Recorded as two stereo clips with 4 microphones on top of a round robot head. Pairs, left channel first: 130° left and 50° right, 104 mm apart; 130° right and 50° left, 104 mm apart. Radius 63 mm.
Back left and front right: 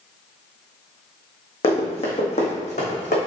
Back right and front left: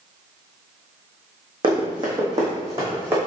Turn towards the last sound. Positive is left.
turn(degrees=120)